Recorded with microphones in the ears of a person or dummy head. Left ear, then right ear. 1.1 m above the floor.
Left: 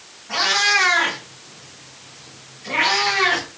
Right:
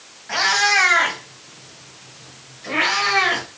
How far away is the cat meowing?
About 2.5 m.